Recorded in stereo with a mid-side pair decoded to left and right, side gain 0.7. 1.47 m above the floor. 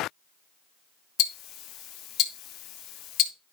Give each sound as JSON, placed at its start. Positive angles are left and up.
{"t": 1.2, "sound": "ticking", "azimuth_deg": 55, "distance_m": 1.3}